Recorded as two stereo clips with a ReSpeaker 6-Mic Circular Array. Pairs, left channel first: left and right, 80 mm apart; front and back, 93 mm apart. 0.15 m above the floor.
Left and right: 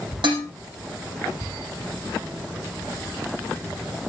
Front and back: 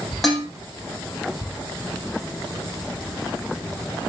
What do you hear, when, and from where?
0.2 s dishes clattering: 90° right, 4.5 m